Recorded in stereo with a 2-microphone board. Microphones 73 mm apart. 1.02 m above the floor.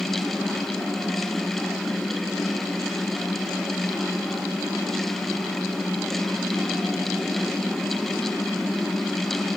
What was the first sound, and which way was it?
Only background noise.